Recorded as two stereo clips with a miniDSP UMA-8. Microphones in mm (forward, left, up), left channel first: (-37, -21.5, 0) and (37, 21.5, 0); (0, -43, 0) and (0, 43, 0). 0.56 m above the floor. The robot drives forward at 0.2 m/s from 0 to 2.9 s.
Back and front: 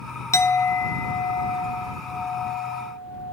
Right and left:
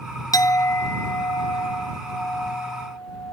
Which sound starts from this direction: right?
A clink, at 0.3 s.